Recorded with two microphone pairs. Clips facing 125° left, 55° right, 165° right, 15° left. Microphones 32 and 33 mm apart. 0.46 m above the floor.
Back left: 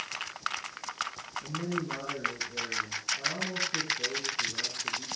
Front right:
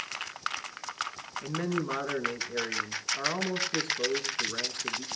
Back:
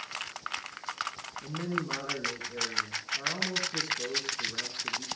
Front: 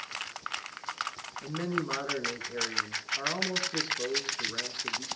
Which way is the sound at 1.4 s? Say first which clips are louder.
Front right 3 dB, front 1 dB; 50° right.